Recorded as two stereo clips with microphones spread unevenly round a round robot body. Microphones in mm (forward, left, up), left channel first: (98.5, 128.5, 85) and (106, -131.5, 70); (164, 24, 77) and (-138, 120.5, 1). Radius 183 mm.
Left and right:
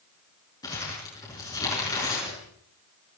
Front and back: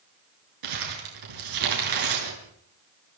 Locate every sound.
0.6 s crumpling: 170° left, 6.5 m